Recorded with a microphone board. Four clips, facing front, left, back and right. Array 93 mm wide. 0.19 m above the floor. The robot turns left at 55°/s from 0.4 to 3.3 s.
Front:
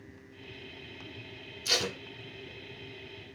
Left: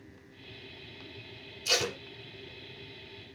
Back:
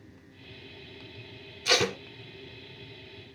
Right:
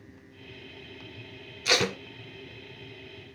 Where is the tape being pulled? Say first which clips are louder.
Right 5 dB, back 7 dB; 115° right, 1.7 m; by 2.0 s 130° right, 1.7 m.